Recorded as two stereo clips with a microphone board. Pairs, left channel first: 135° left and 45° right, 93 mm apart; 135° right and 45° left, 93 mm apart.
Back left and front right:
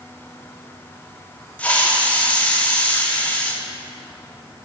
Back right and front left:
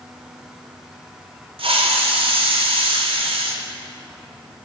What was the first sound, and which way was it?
A hiss, 60° left.